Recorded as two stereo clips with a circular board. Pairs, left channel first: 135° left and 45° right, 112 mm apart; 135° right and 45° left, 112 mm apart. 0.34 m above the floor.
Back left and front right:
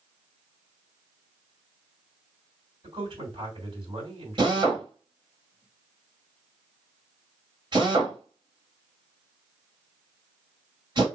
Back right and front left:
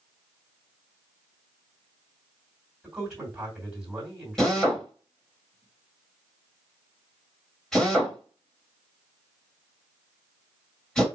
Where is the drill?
50° right, 1.7 m.